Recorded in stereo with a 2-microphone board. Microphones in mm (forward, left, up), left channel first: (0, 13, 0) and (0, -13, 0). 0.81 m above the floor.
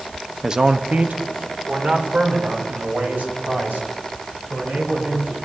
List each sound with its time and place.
0.4 s a man speaking: 20° right (ahead or behind), 0.6 m; by 5.3 s 80° right, 7 m